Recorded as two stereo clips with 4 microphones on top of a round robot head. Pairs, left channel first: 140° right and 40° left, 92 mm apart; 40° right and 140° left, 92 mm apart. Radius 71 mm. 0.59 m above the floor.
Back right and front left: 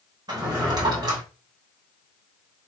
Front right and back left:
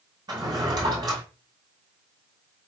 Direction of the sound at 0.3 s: 90° left.